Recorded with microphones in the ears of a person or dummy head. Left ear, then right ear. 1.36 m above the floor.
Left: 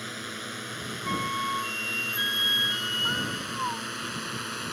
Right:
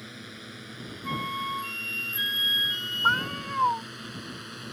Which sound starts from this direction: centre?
A flute, at 1.0 s.